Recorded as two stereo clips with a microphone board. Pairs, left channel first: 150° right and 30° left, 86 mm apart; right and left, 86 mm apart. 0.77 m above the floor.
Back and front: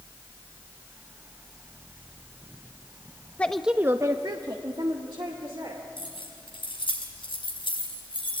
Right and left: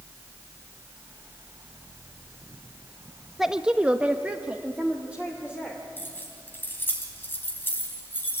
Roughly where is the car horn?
No car horn in this recording.